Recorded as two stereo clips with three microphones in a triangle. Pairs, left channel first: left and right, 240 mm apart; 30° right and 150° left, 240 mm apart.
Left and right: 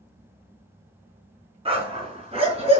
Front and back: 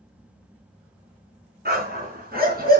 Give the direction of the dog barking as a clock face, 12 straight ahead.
5 o'clock.